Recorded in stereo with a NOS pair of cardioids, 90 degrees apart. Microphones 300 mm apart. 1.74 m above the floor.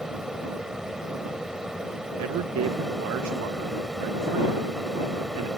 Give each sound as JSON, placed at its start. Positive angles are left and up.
{"t": 0.0, "sound": "a fan", "azimuth_deg": 0}
{"t": 2.2, "sound": "a man speaking", "azimuth_deg": -60}